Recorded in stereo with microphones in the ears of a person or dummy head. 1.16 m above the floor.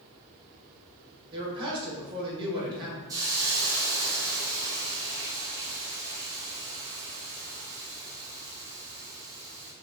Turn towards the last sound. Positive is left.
turn(degrees=-15)  # may be behind; listen again after turning